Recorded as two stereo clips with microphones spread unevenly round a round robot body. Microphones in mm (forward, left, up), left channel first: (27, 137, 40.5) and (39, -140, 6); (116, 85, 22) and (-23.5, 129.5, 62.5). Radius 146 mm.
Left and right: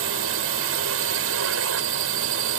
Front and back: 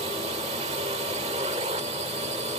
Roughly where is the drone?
Behind right.